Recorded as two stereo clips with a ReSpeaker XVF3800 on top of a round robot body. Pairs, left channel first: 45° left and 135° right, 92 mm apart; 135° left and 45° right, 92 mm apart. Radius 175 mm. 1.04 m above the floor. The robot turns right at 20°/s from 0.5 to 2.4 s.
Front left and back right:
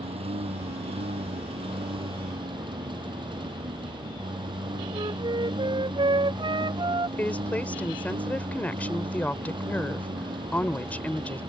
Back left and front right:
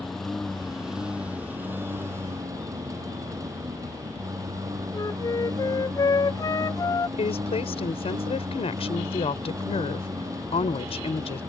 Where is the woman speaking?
120° left.